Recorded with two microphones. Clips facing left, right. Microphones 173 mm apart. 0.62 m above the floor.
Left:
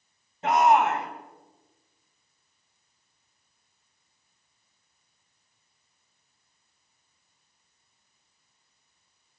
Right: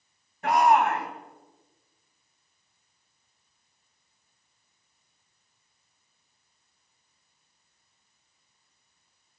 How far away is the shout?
About 3.5 m.